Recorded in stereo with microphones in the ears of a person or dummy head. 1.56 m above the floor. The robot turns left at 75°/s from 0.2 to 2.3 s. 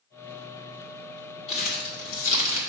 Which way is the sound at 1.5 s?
30° left (ahead or behind).